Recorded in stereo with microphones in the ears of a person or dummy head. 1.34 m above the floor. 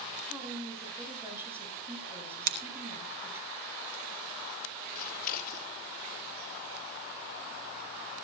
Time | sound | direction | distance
0.3 | a woman speaking | 15° right (ahead or behind) | 7.5 m
2.5 | scissors | 45° right (ahead or behind) | 0.9 m
5.0 | scissors | 50° left (ahead or behind) | 2.5 m